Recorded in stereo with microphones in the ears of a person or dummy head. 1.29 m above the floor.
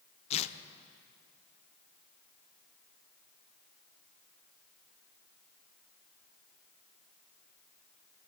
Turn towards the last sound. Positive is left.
turn(degrees=30)  # may be behind; listen again after turning